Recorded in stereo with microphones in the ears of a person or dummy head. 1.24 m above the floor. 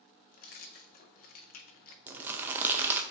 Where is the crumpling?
10° right (ahead or behind), 0.6 m.